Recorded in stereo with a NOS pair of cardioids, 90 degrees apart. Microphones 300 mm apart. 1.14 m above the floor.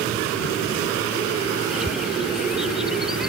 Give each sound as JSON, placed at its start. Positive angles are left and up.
{"t": 1.7, "sound": "a bird", "azimuth_deg": 0}